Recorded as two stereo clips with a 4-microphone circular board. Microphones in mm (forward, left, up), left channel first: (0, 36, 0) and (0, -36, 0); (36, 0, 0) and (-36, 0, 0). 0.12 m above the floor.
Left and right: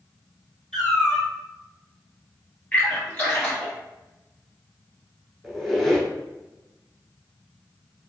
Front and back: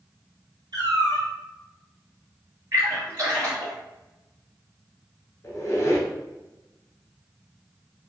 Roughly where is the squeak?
Ahead.